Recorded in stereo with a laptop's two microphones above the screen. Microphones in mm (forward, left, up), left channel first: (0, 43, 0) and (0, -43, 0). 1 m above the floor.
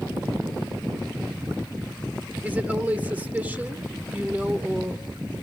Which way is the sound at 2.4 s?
20° right (ahead or behind).